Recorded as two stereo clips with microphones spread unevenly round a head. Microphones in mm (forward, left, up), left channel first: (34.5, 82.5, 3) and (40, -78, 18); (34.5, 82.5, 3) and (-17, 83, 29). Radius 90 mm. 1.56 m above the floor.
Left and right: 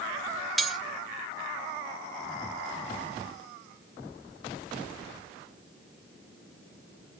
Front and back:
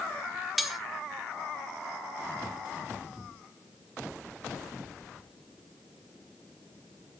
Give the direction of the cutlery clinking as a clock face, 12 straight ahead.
6 o'clock.